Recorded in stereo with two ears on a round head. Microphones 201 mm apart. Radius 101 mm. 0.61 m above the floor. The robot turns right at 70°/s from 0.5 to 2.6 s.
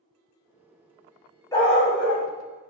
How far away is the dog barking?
About 0.9 m.